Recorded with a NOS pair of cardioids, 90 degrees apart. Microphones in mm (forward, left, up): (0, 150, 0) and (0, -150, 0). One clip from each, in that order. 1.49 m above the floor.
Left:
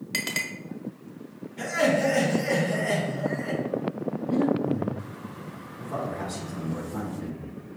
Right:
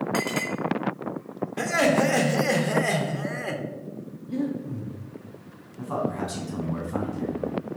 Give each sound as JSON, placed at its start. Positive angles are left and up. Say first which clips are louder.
{"t": 0.1, "sound": "a clink", "louder": "left 1 dB", "azimuth_deg": 45, "distance_m": 1.3}
{"t": 1.6, "sound": "laughter", "louder": "right 2 dB", "azimuth_deg": -60, "distance_m": 1.1}
{"t": 4.3, "sound": "breathing", "louder": "left 5 dB", "azimuth_deg": 15, "distance_m": 0.6}
{"t": 5.8, "sound": "a man speaking", "louder": "right 3 dB", "azimuth_deg": -65, "distance_m": 1.8}